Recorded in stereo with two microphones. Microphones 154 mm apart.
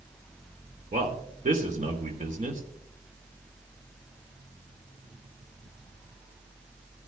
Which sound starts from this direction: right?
A man speaking, at 0.9 s.